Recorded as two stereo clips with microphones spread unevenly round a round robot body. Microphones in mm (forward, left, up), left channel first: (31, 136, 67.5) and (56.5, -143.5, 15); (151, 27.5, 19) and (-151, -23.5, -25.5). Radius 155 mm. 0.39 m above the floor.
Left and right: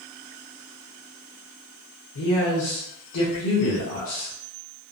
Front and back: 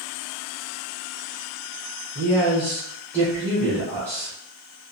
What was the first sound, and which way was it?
A man speaking, 105° left.